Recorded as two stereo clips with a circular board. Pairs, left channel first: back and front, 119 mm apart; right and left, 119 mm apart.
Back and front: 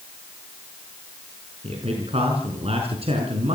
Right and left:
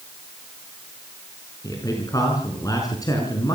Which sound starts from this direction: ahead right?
A man speaking, at 1.6 s.